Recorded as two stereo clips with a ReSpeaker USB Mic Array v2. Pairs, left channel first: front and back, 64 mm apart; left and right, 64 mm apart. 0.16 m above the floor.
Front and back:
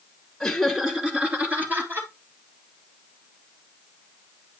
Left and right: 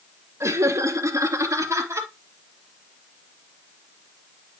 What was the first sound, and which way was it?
Laughter, 80° right.